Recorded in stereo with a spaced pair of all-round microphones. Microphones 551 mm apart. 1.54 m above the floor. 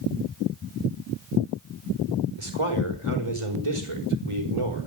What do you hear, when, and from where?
2.4 s a man speaking: 60° right (ahead or behind), 5 m